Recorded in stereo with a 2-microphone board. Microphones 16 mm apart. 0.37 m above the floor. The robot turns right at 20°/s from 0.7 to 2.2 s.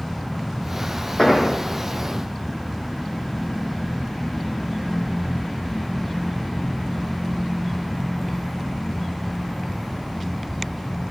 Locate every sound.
1.2 s an explosion: 50° left (ahead or behind), 4.5 m; by 1.5 s 45° left (ahead or behind), 4.5 m